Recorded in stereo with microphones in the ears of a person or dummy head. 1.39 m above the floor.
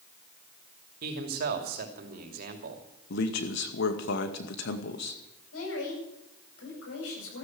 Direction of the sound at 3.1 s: 65° left (ahead or behind).